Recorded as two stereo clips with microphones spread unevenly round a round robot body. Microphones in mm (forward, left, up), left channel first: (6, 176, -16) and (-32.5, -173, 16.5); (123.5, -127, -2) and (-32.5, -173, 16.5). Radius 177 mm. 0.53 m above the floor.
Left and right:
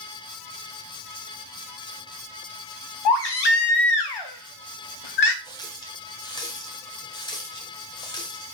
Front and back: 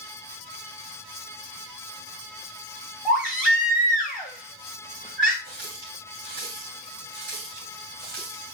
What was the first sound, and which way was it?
A baby crying, 105° left.